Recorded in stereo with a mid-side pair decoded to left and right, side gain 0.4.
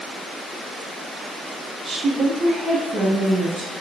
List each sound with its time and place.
1.9 s a woman speaking: 45° right, 0.9 m; by 3.7 s 70° right, 3 m